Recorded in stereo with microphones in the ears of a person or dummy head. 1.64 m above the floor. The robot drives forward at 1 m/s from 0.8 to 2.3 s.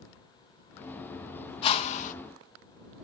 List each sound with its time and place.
1.6 s a whoosh: 30° left (ahead or behind), 1.4 m; by 2.1 s 45° left (ahead or behind), 1.0 m